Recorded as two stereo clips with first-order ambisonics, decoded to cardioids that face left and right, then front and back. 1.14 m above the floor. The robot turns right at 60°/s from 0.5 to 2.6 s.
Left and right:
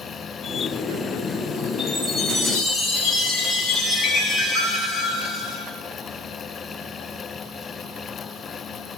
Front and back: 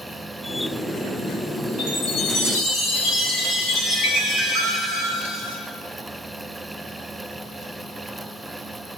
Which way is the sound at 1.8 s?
20° right.